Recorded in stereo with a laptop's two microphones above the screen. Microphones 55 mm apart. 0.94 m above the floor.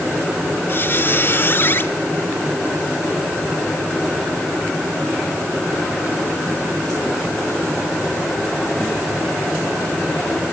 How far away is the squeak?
About 1.2 m.